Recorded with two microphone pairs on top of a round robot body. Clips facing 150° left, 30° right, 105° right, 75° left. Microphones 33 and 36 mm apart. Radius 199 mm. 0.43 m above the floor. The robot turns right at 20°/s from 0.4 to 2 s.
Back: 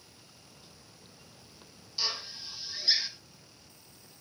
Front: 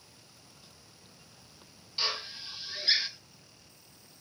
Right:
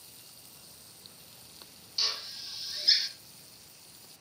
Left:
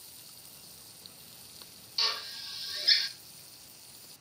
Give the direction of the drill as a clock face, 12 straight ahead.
12 o'clock.